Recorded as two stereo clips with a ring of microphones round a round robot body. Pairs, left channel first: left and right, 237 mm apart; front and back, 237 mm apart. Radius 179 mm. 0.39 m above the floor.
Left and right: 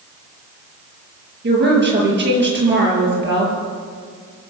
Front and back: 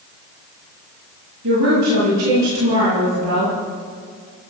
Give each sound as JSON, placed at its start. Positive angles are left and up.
{"t": 1.4, "sound": "a woman speaking", "azimuth_deg": -130, "distance_m": 8.0}